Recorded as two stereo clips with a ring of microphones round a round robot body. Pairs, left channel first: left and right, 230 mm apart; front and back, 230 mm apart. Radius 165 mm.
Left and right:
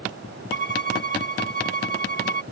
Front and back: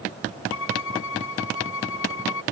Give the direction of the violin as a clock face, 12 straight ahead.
1 o'clock.